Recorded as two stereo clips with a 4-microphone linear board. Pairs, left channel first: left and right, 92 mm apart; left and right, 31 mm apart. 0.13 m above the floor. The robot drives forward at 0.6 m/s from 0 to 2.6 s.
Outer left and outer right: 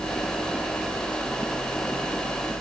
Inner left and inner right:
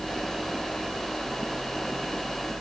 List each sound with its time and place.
Only background noise.